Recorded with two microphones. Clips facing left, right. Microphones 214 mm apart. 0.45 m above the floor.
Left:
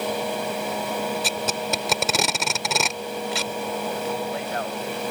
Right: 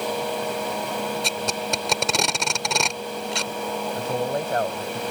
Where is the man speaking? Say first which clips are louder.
Right 2 dB; 45° right (ahead or behind).